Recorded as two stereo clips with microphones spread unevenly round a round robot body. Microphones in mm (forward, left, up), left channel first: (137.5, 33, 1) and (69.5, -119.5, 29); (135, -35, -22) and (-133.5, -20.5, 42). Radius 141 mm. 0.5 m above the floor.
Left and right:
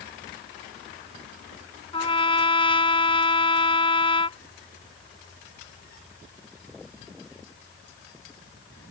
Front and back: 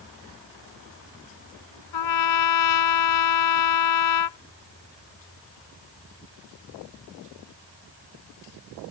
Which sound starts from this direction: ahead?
A trumpet, at 1.9 s.